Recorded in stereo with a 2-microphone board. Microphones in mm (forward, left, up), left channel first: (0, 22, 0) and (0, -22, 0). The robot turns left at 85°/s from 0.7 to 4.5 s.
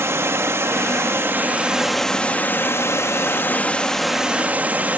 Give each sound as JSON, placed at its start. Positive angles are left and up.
{"t": 0.0, "sound": "running water", "azimuth_deg": -70, "distance_m": 1.4}